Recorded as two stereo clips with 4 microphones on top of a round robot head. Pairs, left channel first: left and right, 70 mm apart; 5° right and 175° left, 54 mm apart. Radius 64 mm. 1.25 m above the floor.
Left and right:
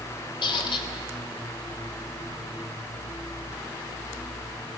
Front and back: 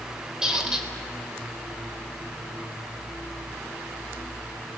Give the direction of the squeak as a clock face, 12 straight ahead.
9 o'clock.